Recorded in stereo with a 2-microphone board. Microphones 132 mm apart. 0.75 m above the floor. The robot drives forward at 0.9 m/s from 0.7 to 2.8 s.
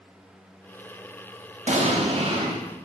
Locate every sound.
1.7 s an explosion: 60° right (ahead or behind), 1.3 m; by 2.6 s 45° right (ahead or behind), 1.7 m